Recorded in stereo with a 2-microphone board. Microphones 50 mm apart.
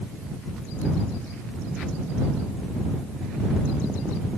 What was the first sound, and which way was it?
Only background noise.